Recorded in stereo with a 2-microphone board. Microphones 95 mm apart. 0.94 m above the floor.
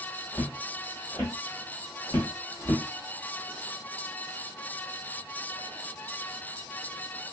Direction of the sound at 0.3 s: 20° left (ahead or behind).